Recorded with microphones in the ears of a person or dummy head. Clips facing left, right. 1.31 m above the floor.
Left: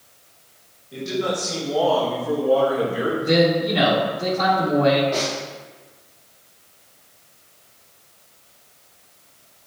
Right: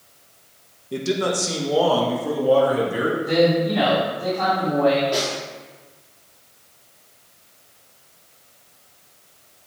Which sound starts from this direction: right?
A man speaking, at 0.9 s.